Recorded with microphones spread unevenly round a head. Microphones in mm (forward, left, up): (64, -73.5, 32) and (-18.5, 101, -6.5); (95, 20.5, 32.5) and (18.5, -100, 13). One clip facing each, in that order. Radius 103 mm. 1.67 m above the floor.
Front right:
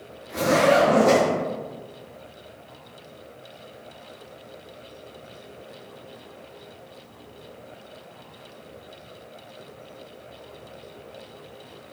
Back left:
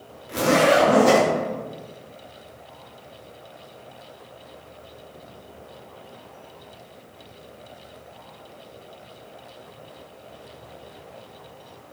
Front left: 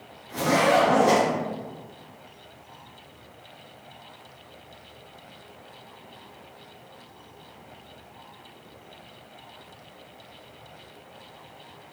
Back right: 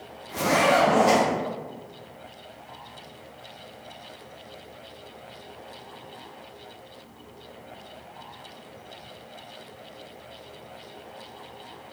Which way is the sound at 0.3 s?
170° left.